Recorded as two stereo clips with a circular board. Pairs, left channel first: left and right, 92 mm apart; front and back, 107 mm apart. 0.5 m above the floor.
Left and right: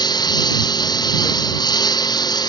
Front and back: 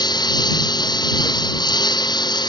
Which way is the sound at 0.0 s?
45° left.